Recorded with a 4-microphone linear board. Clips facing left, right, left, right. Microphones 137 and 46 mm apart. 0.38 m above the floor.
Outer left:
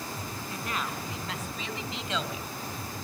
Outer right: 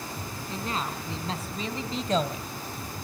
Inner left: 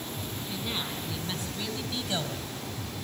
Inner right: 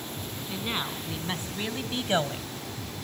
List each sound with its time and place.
0.5 s a woman speaking: 30° right (ahead or behind), 3.5 m; by 2.5 s 50° right (ahead or behind), 1.5 m